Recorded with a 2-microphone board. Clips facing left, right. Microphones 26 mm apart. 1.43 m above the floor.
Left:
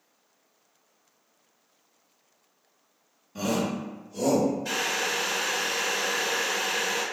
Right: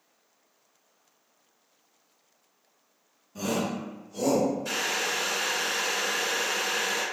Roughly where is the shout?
Left.